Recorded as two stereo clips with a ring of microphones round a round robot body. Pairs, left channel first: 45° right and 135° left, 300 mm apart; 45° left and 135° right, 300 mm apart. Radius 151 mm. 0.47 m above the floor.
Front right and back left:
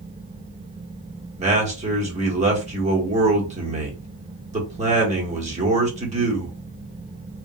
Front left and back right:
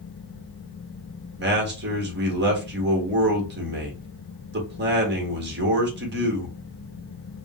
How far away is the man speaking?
About 1.1 m.